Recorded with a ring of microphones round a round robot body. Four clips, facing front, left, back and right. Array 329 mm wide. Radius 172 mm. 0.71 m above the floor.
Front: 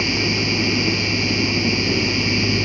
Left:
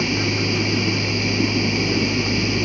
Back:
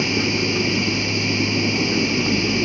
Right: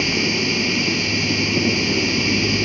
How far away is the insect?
About 1.5 m.